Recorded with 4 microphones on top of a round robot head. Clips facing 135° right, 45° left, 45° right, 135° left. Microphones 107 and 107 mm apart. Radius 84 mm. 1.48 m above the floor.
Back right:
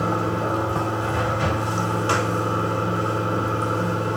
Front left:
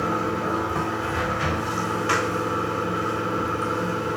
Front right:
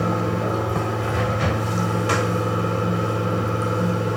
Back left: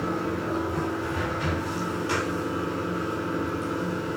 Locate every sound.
0.0 s running water: 65° right, 4.5 m